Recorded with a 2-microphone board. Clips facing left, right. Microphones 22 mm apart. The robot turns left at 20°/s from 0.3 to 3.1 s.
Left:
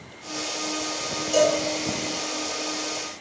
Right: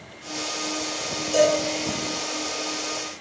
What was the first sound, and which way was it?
A cowbell, 40° left (ahead or behind).